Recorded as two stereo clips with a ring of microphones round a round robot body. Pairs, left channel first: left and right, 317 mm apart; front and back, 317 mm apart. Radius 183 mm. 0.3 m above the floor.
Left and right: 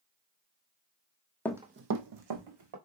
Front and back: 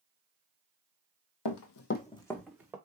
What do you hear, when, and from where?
1.4 s running footsteps: 5° left, 0.7 m; by 2.8 s 95° right, 1.6 m